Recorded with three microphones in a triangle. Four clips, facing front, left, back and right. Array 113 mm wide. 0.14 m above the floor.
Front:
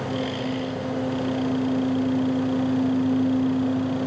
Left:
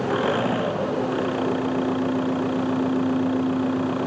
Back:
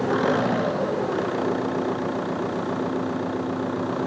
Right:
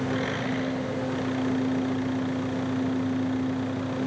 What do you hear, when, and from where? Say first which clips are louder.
0.0 s an engine running: left 6 dB, back 6 dB; 140° left